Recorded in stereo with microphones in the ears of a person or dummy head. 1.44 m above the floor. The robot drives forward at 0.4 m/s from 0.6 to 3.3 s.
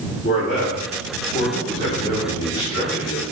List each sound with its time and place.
0.2 s a man speaking: 50° left (ahead or behind), 0.8 m; by 3.2 s 20° left (ahead or behind), 1.7 m